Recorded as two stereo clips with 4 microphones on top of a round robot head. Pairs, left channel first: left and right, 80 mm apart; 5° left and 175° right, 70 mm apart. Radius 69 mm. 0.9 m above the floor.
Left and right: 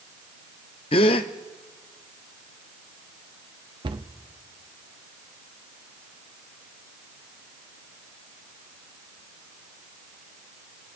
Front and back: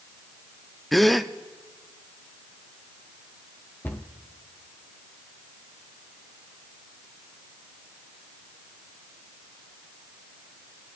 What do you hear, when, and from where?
0.9 s a gasp: 95° left, 0.5 m
3.8 s a cupboard door: 65° right, 0.8 m